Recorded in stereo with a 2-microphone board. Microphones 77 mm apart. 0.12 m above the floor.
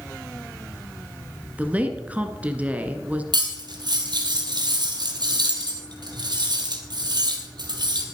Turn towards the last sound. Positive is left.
turn(degrees=-65)  # may be behind; listen again after turning